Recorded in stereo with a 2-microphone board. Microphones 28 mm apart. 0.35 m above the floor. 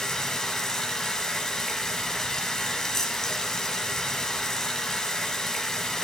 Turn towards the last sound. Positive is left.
turn(degrees=20)  # may be behind; listen again after turning